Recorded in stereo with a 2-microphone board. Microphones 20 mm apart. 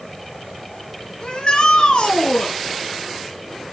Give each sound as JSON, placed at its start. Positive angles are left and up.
{"t": 1.2, "sound": "a shout", "side_deg": 55, "distance_m": 2.5}